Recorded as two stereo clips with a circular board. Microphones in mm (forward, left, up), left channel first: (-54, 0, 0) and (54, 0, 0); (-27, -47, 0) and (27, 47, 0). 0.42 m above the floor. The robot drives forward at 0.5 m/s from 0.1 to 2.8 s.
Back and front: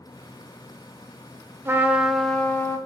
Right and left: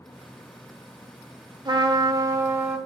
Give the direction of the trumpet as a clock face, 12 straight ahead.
10 o'clock.